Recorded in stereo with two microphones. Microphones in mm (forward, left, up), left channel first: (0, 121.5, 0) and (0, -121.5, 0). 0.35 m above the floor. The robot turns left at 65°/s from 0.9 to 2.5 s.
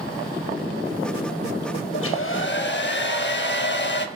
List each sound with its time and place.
1.9 s a hair dryer: 95° left, 0.5 m; by 4.1 s 60° left, 0.5 m